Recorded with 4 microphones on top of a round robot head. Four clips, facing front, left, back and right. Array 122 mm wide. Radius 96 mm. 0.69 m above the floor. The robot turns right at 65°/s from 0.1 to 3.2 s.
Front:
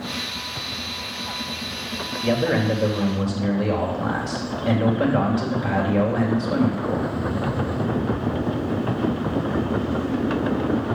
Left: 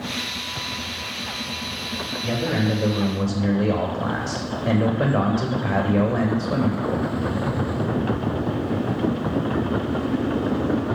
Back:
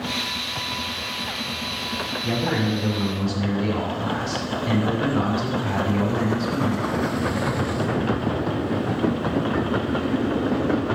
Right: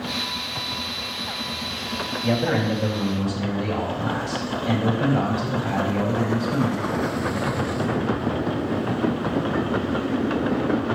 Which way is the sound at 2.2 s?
5° right.